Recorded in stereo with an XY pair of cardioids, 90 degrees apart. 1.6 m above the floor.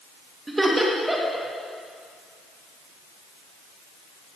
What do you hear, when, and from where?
0.5 s laughter: 15° right, 2.5 m